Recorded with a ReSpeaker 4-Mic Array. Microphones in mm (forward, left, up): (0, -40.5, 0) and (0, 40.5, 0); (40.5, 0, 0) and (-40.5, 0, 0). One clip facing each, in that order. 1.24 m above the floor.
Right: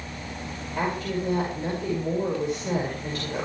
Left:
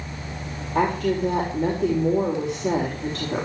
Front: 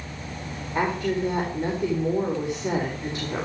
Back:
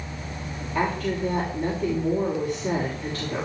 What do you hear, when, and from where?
0.8 s a woman speaking: 75° left, 5 m